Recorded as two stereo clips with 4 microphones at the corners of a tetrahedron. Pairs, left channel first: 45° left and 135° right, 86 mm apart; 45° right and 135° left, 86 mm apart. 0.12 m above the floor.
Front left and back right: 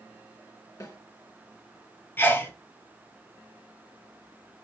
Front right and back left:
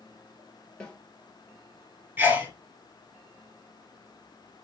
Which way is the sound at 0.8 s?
30° left.